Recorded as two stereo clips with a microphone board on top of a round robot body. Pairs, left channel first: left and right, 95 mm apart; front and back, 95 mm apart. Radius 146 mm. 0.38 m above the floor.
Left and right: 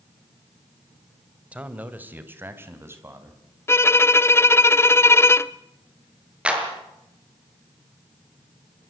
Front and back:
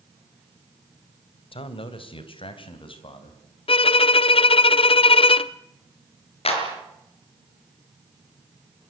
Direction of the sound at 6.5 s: 10° right.